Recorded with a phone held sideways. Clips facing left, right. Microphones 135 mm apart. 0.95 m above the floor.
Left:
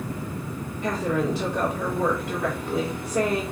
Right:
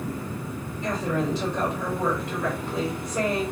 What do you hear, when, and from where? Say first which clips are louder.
0.8 s a woman speaking: left 2 dB; 60° left (ahead or behind), 2 m